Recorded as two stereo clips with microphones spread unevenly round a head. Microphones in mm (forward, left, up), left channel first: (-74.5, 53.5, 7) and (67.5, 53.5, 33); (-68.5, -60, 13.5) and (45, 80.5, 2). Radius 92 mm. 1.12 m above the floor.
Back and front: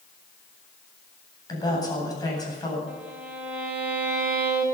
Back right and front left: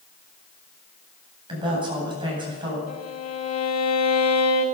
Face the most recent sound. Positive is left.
turn(degrees=-80)